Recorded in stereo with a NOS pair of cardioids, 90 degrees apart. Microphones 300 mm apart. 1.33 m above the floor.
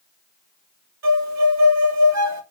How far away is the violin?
About 2 m.